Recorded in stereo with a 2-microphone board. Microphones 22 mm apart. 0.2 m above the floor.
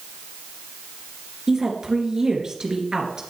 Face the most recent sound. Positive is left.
turn(degrees=-30)  # may be behind; listen again after turning